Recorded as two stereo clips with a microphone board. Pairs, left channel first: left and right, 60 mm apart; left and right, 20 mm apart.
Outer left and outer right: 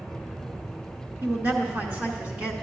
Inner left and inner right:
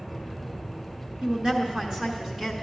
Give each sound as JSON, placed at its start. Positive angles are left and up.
{"t": 1.2, "sound": "a woman speaking", "side_deg": -45, "distance_m": 2.0}